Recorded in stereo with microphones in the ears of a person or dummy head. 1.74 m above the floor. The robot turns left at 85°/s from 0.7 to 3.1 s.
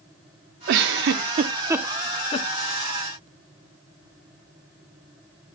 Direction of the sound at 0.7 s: 60° right (ahead or behind).